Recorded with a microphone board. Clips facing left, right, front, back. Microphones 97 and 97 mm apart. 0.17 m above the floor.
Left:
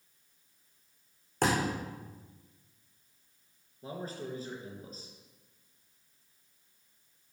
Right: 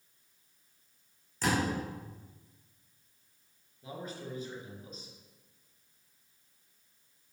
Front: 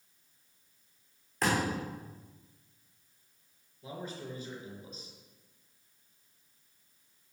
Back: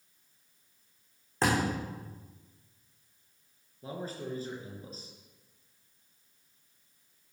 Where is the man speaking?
135° left, 3 m.